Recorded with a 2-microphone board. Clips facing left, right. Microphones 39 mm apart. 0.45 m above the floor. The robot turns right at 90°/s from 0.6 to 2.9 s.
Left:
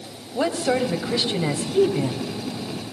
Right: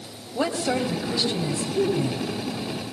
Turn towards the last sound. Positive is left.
turn(degrees=-140)